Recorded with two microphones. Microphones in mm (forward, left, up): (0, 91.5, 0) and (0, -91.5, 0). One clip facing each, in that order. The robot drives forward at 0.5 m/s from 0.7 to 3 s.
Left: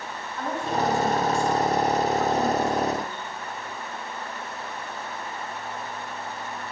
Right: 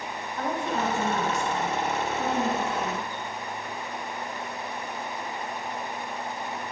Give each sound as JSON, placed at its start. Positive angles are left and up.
{"t": 0.4, "sound": "a woman speaking", "side_deg": -20, "distance_m": 2.0}